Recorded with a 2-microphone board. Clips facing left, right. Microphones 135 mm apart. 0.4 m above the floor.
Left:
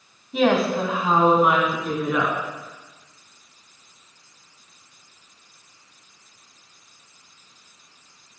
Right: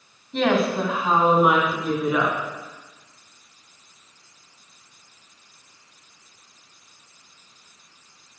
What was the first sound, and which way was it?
A woman speaking, 5° left (ahead or behind).